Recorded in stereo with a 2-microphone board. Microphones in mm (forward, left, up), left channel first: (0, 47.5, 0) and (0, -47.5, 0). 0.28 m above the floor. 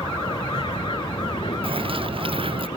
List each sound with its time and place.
0.0 s an aircraft: 70° left (ahead or behind)
1.6 s a bird: 85° right